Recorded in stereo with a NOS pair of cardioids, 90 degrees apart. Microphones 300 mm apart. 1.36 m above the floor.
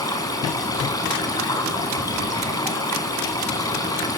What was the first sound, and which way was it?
Running water, 10° left.